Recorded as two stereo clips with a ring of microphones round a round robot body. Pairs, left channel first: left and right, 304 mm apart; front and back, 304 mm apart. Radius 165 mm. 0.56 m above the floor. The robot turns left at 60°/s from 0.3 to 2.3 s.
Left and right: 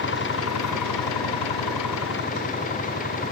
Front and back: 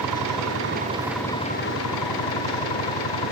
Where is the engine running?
140° left; by 3.3 s 20° left.